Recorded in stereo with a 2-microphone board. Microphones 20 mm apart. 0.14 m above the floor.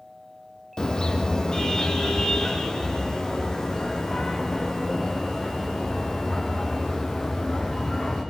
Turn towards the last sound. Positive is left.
turn(degrees=25)  # may be behind; listen again after turning